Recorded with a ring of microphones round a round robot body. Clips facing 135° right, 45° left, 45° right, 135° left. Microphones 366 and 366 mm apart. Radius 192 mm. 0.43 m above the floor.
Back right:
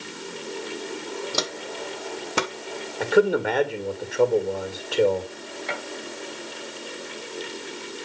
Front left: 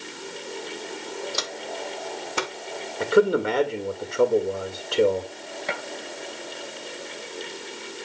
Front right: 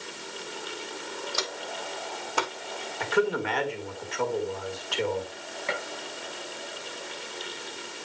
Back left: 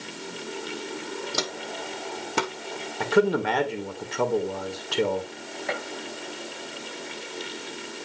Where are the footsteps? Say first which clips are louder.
Back right 2 dB, back left 3 dB; straight behind, 1.1 m; by 2.5 s 165° right, 1.6 m.